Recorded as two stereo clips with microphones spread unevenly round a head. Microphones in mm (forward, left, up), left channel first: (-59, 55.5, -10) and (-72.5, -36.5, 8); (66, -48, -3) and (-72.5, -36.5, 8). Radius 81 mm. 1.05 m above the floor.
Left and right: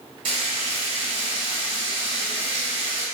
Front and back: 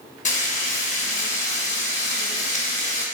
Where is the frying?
35° right, 1.6 m.